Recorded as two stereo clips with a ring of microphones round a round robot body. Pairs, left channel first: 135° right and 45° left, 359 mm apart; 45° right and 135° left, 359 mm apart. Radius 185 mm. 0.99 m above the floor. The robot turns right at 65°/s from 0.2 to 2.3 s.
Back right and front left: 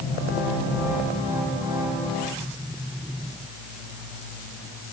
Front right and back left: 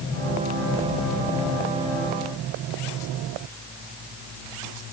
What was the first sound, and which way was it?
Only background noise.